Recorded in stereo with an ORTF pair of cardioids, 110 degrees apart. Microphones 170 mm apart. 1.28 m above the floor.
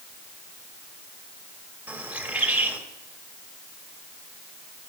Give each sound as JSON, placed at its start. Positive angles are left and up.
{"t": 1.9, "sound": "a bird", "azimuth_deg": -10, "distance_m": 1.9}